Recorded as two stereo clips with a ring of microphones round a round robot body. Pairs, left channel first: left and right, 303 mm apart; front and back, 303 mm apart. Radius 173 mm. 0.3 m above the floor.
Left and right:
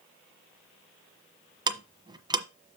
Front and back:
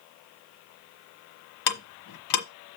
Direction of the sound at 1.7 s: 15° right.